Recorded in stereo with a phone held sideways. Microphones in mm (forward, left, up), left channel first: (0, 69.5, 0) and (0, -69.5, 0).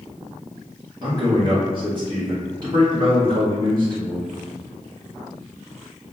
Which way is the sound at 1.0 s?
35° right (ahead or behind).